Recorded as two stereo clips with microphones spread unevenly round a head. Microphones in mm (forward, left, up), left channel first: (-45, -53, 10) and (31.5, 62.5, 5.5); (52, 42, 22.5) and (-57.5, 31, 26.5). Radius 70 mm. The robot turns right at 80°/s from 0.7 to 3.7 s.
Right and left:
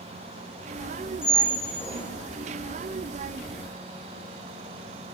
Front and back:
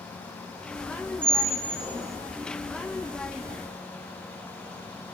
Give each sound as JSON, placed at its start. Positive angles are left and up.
{"t": 1.2, "sound": "a squeak", "azimuth_deg": 120, "distance_m": 3.0}